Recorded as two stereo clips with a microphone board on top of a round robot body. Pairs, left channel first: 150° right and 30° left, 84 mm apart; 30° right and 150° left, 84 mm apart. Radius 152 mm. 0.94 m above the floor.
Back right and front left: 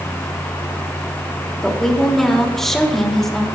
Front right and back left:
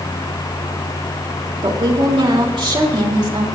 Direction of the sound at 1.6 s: 125° left.